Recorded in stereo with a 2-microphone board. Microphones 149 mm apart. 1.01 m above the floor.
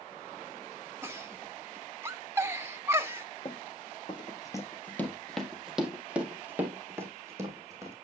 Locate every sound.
1.0 s a giggle: 15° right (ahead or behind), 0.7 m
3.5 s running footsteps: 45° left (ahead or behind), 1.4 m; by 8.0 s 20° right (ahead or behind), 3 m